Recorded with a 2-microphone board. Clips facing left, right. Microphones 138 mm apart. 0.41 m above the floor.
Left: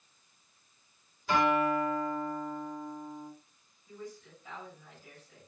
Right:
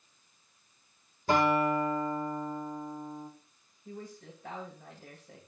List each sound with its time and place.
1.3 s a guitar: 45° right (ahead or behind), 6.5 m
3.9 s a woman speaking: 80° right, 7 m